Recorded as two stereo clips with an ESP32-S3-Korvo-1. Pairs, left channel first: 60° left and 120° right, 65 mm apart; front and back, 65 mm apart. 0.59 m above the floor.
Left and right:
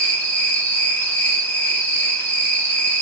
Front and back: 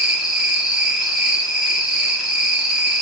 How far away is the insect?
About 0.8 m.